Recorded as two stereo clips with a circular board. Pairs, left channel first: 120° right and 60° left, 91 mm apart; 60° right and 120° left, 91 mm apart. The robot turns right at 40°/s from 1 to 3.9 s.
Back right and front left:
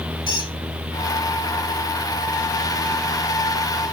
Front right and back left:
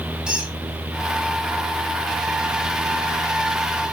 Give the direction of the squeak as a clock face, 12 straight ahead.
5 o'clock.